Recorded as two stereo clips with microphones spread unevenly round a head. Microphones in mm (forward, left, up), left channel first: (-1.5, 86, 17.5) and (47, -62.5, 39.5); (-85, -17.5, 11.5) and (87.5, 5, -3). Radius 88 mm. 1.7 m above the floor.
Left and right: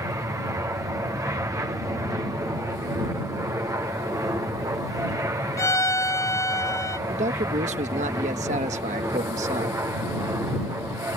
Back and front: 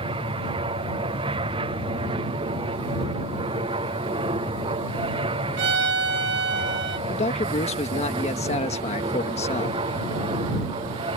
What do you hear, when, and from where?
0.0 s an aircraft: 5° right
5.6 s a violin: 35° left
7.1 s a man speaking: 120° right